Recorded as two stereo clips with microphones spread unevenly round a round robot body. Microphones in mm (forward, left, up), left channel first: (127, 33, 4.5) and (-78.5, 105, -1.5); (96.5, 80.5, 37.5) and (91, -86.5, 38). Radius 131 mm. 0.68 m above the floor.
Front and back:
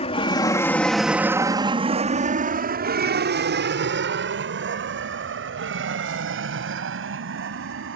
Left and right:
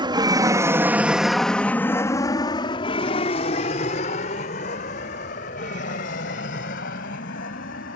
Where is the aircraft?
60° right; by 8.0 s 135° left.